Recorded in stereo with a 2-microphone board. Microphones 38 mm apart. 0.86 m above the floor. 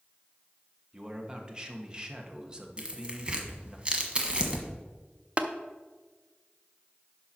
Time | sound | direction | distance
0.9 | a man speaking | 20° right (ahead or behind) | 1.2 m
2.8 | tearing paper | 25° right (ahead or behind) | 1.3 m
5.4 | tapping | 35° right (ahead or behind) | 0.6 m